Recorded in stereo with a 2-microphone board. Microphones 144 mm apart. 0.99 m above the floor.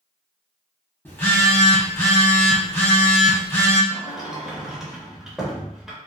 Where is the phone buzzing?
15° left (ahead or behind), 1.1 m.